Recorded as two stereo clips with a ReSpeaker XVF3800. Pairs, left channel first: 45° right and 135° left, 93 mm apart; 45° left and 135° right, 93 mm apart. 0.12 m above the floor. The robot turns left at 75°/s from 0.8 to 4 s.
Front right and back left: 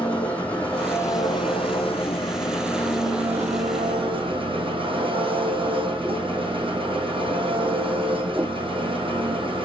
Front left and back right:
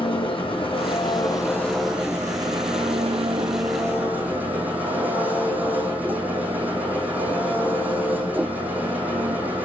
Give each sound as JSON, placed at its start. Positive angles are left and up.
{"t": 0.0, "sound": "an engine running", "azimuth_deg": 30, "distance_m": 3.5}